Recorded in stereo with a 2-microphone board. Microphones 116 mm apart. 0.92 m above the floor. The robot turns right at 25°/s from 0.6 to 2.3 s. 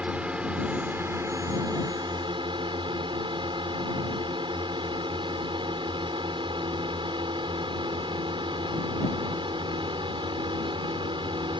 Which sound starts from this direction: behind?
A drone, at 0.0 s.